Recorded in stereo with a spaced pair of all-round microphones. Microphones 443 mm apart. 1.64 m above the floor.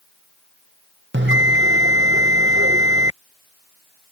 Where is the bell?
25° right (ahead or behind).